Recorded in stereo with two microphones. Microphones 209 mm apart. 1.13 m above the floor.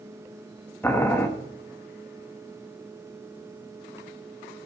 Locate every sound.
0.8 s boiling: 10° left (ahead or behind), 1.1 m